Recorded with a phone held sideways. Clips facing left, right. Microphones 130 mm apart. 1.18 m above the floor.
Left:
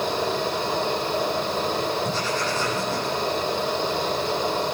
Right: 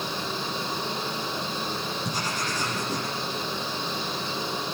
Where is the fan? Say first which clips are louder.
Left 8 dB; 75° left (ahead or behind), 6 m.